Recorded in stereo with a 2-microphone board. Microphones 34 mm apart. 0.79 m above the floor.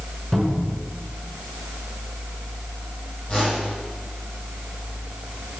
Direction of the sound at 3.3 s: 35° left (ahead or behind).